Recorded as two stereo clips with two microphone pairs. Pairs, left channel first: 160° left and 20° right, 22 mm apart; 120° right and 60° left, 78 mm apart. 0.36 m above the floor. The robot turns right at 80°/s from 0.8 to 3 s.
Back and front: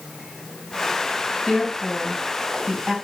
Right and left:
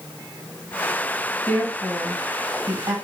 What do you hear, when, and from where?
1.5 s a woman speaking: 75° right, 2.0 m; by 3.0 s 40° left, 2.0 m